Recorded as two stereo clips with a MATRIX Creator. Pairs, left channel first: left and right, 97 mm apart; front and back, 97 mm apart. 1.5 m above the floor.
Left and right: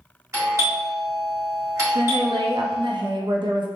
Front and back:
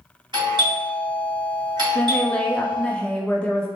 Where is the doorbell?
145° right, 1.3 m.